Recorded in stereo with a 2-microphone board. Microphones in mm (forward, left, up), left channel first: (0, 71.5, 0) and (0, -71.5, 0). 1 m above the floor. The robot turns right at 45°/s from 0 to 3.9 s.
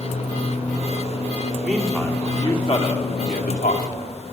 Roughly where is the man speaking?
Centre.